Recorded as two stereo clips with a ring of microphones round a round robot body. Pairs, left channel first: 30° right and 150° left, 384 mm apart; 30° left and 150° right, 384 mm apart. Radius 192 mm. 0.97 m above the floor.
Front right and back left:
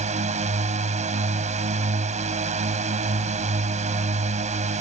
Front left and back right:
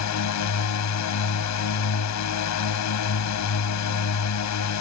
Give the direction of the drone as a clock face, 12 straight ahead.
9 o'clock.